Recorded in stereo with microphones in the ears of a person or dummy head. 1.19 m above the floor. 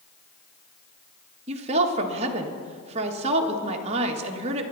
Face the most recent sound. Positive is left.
turn(degrees=-35)  # may be behind; listen again after turning